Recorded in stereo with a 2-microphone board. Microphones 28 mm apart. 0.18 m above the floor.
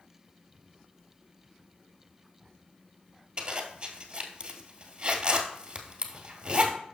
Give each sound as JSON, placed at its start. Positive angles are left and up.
{"t": 3.4, "sound": "a zipper", "side_deg": -35, "distance_m": 1.4}